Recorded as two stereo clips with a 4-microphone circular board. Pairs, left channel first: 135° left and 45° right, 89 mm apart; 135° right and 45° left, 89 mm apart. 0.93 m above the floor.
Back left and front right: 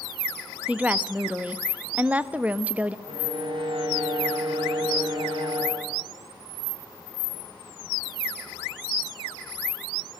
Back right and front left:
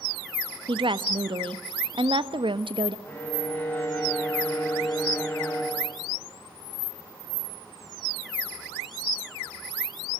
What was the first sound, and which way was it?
A woman speaking, 30° left.